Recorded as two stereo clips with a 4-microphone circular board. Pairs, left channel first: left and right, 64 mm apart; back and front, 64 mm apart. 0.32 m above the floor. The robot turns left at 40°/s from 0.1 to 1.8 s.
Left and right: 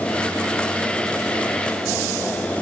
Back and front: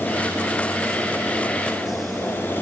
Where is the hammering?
No hammering in this recording.